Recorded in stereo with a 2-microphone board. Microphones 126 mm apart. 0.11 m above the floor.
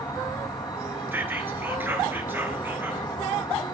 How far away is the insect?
About 1.5 m.